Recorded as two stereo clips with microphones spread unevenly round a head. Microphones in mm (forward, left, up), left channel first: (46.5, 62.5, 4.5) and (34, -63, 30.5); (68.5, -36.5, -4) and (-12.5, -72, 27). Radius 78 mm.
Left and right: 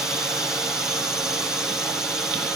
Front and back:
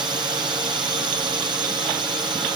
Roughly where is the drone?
Behind.